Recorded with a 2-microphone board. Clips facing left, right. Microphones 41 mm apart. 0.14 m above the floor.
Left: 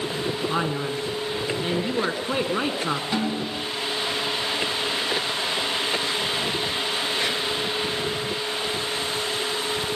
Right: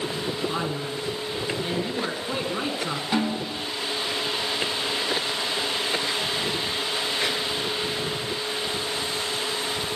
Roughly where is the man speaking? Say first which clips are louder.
Left 3 dB; left.